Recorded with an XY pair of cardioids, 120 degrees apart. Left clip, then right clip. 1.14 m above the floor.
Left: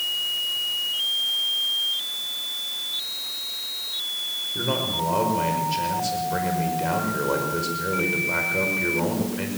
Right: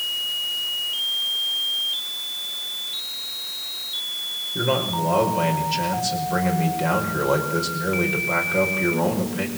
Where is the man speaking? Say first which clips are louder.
Right 4 dB; 15° right, 5.5 m.